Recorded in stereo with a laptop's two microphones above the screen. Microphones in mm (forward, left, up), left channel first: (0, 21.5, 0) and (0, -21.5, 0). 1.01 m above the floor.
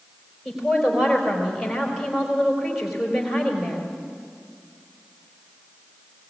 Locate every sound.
0.5 s a woman speaking: 5° right (ahead or behind), 4 m